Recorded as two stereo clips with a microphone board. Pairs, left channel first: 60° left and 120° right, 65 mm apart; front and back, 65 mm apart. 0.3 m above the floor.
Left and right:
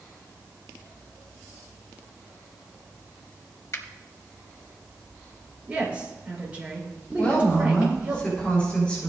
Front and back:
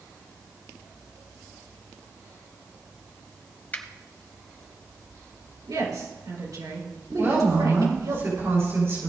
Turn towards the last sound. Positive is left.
turn(degrees=135)